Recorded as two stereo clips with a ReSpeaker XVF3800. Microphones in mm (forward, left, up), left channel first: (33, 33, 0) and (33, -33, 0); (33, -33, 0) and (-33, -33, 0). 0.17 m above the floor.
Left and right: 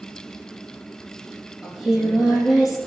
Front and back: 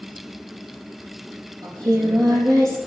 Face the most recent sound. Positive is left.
turn(degrees=-175)